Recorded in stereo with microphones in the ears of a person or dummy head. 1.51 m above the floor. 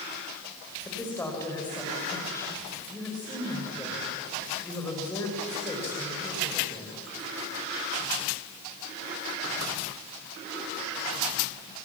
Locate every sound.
0.8 s a woman speaking: 10° left (ahead or behind), 6 m